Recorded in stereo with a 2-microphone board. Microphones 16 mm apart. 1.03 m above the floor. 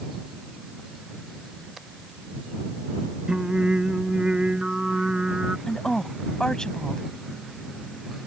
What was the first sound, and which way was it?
Singing, 70° right (ahead or behind).